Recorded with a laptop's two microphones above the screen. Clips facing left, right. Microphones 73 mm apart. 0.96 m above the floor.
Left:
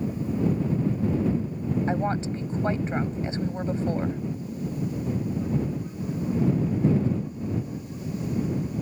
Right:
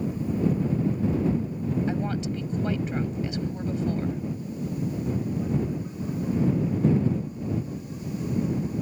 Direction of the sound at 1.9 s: 30° left (ahead or behind).